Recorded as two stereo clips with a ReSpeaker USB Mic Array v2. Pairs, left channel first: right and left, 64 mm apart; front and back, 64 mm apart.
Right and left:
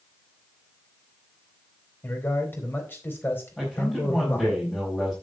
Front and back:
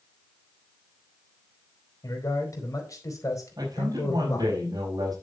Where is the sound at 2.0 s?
35° right, 4 m.